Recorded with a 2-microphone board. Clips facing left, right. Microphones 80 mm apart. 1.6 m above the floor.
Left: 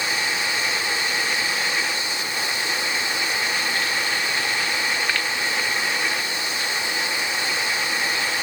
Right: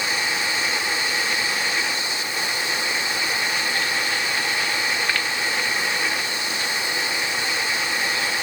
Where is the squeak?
No squeak in this recording.